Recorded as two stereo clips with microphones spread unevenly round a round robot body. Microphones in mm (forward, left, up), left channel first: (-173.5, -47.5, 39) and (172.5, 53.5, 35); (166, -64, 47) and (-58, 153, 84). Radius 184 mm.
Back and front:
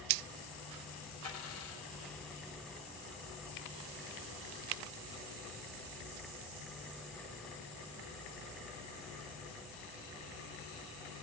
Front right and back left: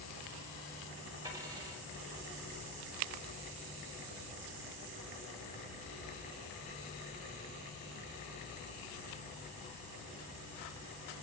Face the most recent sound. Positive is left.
turn(degrees=-140)